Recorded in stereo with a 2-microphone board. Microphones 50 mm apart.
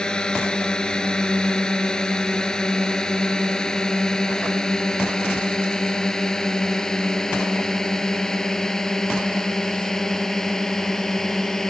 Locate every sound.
0.0 s a drone: 15° left (ahead or behind); by 11.7 s 10° left (ahead or behind)